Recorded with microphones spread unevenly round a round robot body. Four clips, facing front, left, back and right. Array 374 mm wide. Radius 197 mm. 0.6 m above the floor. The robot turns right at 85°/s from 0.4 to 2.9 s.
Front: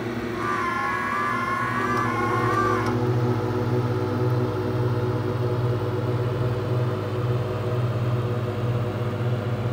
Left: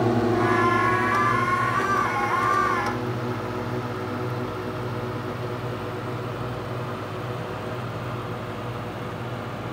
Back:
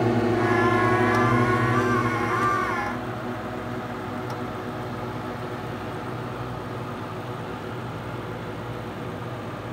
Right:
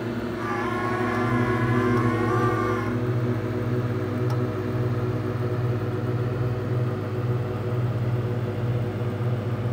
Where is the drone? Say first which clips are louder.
Left 8 dB, back 6 dB; 130° left; by 9.7 s 40° right.